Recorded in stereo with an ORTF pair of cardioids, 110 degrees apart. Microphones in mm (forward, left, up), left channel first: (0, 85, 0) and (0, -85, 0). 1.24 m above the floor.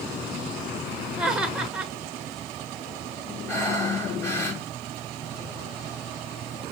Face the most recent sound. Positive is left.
turn(degrees=15)